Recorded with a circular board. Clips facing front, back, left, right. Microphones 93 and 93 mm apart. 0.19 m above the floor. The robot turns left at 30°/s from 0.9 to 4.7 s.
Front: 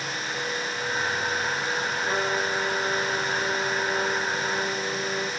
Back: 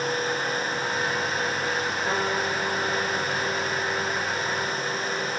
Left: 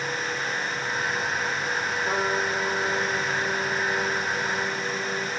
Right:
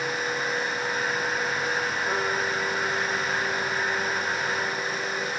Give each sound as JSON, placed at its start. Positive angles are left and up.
{"t": 2.0, "sound": "a trumpet", "azimuth_deg": 160, "distance_m": 5.5}